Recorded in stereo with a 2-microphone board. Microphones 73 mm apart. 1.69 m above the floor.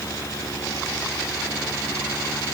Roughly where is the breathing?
I don't hear breathing.